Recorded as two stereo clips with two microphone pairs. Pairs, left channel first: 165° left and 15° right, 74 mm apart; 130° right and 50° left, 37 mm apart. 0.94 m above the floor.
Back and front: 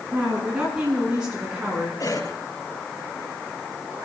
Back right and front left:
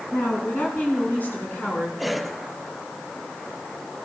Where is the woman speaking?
95° right, 7.5 m; by 1.9 s 90° right, 8.5 m.